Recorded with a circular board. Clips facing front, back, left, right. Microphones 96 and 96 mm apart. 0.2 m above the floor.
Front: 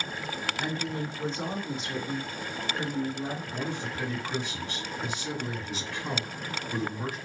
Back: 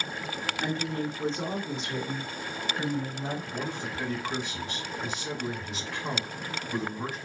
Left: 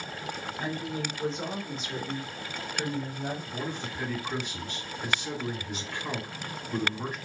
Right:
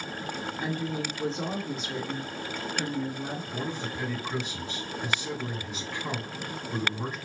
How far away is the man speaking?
About 1.6 m.